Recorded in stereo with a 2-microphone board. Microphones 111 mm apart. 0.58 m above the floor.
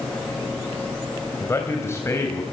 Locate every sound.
1.4 s a man speaking: 25° left (ahead or behind), 3.5 m